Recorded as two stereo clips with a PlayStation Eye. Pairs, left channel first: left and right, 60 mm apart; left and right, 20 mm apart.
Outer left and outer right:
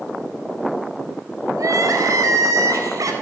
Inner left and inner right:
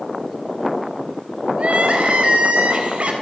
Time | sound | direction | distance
1.6 | crying | 70° right (ahead or behind) | 4 m